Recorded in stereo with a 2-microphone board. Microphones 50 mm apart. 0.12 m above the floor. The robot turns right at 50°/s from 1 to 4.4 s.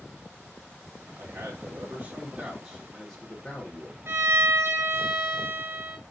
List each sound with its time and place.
1.2 s a man speaking: 95° right, 2.5 m; by 4.0 s 45° left, 2.5 m
4.1 s a violin: 55° right (ahead or behind), 0.9 m